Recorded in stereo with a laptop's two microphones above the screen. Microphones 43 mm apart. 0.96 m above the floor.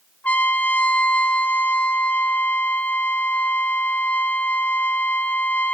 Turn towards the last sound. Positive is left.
turn(degrees=35)  # may be behind; listen again after turning